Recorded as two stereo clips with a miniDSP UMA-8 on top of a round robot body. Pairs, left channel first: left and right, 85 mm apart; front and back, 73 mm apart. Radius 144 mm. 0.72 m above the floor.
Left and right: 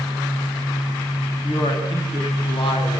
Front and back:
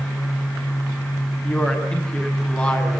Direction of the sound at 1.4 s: 75° left.